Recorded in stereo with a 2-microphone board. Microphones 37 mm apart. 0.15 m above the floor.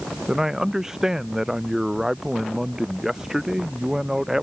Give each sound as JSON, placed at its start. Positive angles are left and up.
{"t": 0.3, "sound": "a man speaking", "side_deg": -15}